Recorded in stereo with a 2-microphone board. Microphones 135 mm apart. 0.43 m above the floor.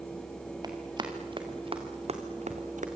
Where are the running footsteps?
30° right (ahead or behind), 4.5 m; by 2.9 s 70° right (ahead or behind), 2.5 m.